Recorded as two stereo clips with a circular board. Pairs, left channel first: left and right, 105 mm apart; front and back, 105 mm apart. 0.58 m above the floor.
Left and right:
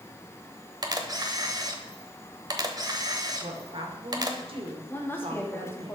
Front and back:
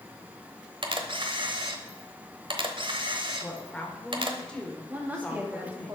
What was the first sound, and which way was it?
A camera shutter, 140° right.